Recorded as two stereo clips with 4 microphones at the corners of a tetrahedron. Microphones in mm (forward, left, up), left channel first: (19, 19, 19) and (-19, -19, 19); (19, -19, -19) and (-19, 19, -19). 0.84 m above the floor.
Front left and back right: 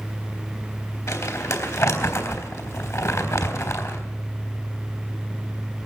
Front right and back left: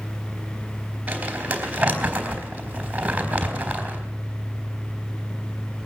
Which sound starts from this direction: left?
Crumpling, at 1.1 s.